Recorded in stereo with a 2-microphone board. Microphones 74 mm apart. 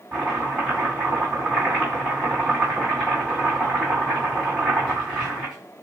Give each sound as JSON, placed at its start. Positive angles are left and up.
{"t": 0.1, "sound": "chopping", "side_deg": -15, "distance_m": 2.0}